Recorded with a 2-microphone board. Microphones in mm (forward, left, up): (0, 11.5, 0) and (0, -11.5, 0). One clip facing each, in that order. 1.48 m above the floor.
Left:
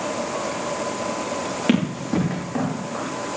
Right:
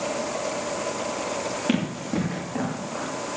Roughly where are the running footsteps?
Left.